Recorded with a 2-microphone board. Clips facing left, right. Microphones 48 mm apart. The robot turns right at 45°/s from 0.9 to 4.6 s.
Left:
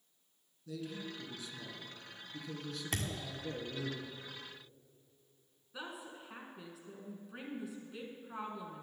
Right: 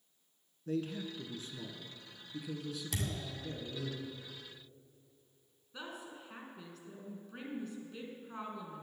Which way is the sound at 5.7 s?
5° left (ahead or behind).